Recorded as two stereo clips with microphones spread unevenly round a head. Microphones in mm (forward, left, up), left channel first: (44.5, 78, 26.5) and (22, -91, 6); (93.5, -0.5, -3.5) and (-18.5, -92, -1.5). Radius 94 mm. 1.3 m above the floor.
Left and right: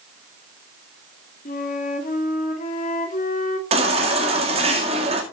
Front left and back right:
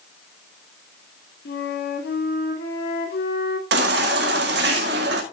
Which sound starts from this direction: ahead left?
A flute, at 1.4 s.